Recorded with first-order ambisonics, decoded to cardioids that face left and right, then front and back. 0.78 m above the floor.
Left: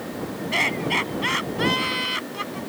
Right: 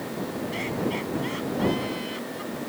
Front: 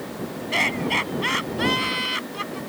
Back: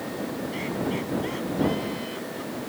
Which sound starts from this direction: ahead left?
Laughter, at 0.5 s.